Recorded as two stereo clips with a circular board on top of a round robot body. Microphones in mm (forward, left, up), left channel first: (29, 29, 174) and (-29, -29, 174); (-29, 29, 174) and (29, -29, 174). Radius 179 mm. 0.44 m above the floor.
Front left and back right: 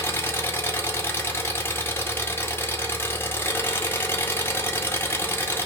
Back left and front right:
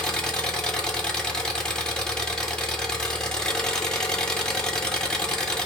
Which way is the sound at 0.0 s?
65° left.